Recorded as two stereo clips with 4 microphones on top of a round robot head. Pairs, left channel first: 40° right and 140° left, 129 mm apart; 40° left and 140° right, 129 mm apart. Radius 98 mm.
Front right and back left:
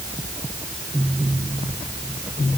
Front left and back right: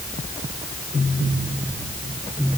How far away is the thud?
No thud in this recording.